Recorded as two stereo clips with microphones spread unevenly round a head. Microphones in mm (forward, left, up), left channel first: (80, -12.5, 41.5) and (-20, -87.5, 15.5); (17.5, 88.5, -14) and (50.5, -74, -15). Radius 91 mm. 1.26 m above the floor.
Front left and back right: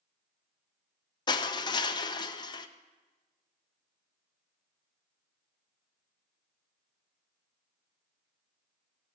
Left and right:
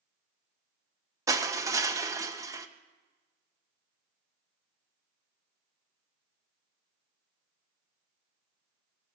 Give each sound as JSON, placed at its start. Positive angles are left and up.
{"t": 1.3, "sound": "crushing", "azimuth_deg": -10, "distance_m": 0.7}